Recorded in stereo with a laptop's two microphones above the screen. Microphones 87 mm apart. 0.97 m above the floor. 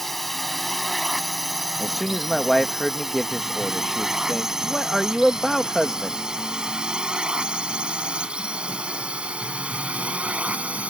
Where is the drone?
Centre (ahead or behind); by 10.9 s 15° right (ahead or behind).